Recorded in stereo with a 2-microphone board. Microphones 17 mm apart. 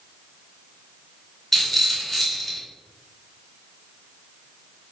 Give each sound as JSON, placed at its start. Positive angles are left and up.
{"t": 1.5, "sound": "a rattle", "side_deg": 15, "distance_m": 3.0}